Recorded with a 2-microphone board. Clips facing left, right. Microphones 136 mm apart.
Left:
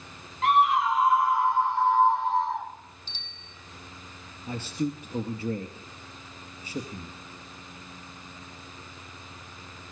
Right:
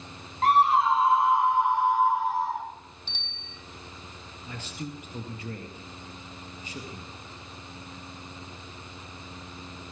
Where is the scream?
40° right (ahead or behind), 3 m; by 2.7 s 5° right (ahead or behind), 5 m.